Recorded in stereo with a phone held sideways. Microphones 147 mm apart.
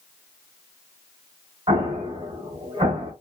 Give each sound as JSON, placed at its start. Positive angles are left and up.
{"t": 1.7, "sound": "an explosion", "side_deg": -30, "distance_m": 1.3}